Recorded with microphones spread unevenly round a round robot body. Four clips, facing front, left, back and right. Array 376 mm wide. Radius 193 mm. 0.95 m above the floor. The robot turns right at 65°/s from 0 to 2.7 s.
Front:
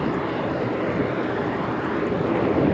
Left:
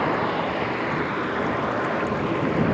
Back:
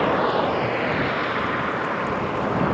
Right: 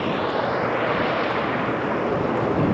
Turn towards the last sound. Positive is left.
turn(degrees=-15)